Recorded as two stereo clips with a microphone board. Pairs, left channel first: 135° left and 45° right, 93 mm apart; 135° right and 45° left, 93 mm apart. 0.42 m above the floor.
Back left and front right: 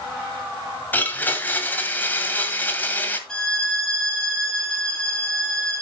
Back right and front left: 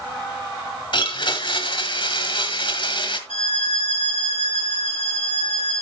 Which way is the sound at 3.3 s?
140° right.